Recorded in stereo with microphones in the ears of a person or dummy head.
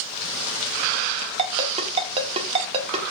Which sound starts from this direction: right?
A ringtone, at 1.4 s.